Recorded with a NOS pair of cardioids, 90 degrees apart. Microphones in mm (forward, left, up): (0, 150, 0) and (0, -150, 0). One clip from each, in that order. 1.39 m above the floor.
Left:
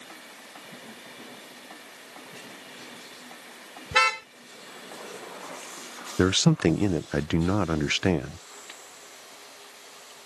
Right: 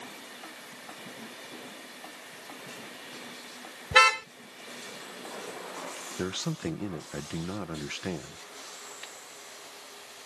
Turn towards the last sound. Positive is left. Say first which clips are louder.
# left 12 dB
turn(degrees=65)